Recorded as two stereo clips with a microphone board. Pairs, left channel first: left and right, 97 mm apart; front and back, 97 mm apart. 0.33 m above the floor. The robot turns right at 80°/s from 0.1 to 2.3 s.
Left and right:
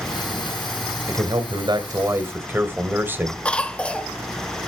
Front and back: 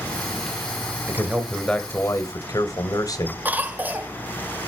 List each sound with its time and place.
1.1 s a man speaking: 125° right, 1.6 m; by 3.4 s 30° right, 1.6 m
3.5 s a cough: 145° left, 0.9 m